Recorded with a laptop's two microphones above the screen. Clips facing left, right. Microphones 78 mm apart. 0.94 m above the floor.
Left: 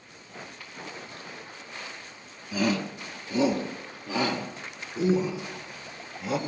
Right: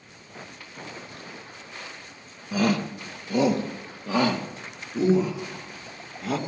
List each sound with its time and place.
2.5 s a shout: 45° right (ahead or behind), 1.1 m; by 6.4 s 75° right (ahead or behind), 3.5 m